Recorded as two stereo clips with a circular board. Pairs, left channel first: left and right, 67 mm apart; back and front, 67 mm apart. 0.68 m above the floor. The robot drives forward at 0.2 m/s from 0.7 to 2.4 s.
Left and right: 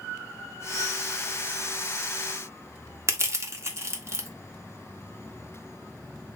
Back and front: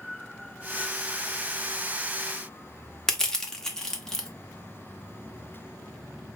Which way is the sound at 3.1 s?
105° right.